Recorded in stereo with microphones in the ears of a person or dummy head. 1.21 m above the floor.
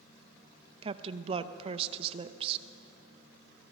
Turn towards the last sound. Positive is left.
turn(degrees=-35)  # may be behind; listen again after turning